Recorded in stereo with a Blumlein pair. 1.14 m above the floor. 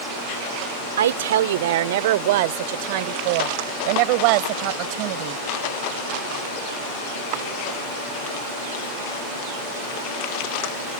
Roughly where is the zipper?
I don't hear a zipper.